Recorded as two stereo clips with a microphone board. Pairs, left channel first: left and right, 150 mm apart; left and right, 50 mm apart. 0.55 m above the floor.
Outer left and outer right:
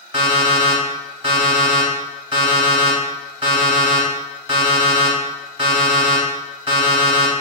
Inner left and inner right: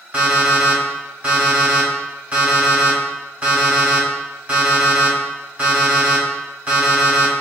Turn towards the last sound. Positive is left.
turn(degrees=-35)  # may be behind; listen again after turning